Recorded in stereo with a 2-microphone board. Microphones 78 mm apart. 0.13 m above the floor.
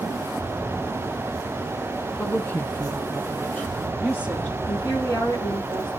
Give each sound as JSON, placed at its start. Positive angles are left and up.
{"t": 2.2, "sound": "a woman speaking", "side_deg": 20, "distance_m": 1.2}
{"t": 4.7, "sound": "a woman speaking", "side_deg": 75, "distance_m": 7.0}